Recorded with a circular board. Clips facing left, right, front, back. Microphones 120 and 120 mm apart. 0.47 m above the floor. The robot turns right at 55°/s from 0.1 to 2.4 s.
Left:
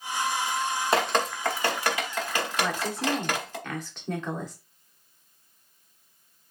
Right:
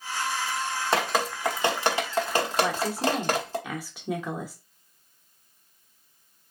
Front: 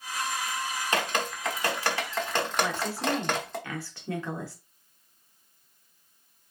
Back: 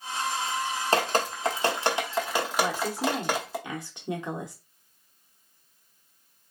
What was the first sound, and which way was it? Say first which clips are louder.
Dripping: even, back 5 dB; straight behind.